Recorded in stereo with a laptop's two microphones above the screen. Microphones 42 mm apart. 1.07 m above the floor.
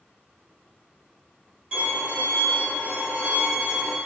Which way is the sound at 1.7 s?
30° right (ahead or behind).